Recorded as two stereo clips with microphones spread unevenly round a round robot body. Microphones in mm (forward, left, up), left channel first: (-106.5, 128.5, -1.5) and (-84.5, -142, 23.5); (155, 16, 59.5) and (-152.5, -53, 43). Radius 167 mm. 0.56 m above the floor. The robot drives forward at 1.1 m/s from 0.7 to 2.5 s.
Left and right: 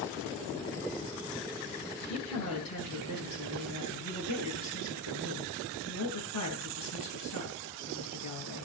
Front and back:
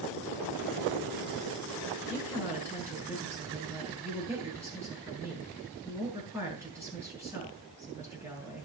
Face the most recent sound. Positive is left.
turn(degrees=110)